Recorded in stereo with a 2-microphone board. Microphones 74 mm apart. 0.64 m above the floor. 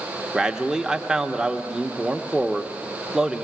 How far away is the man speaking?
About 0.8 m.